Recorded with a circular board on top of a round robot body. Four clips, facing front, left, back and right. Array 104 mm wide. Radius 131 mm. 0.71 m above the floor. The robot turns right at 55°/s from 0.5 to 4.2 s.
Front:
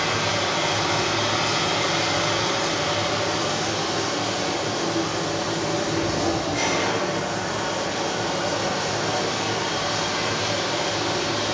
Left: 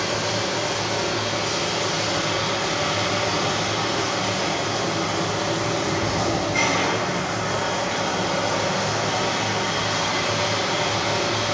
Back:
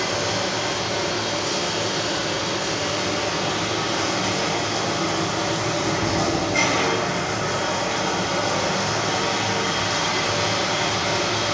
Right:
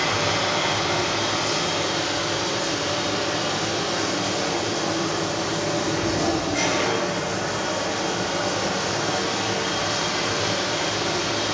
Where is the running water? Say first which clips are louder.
Right 1 dB, even; 70° right, 3 m; by 11.6 s 130° left, 3 m.